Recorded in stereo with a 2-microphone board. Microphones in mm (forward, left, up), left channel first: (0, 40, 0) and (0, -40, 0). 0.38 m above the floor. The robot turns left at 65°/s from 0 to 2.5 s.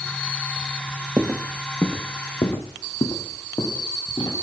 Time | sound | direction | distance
1.2 | footsteps | 30° right (ahead or behind) | 0.6 m